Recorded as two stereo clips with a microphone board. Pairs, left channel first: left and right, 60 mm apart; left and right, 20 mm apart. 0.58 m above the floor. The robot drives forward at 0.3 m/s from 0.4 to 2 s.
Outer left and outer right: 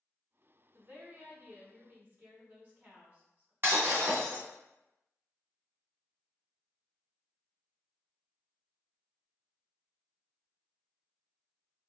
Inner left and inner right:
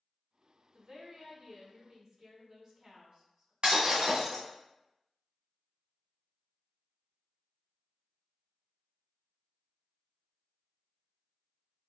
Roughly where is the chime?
I don't hear a chime.